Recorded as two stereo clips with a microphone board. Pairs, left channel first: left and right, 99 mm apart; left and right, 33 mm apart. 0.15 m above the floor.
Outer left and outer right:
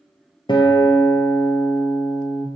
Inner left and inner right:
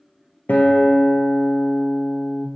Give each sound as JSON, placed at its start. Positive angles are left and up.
{"t": 0.5, "sound": "a guitar", "side_deg": 55, "distance_m": 0.9}